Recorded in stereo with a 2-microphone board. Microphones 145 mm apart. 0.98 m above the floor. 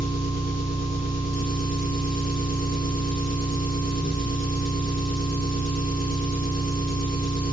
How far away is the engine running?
About 2.5 m.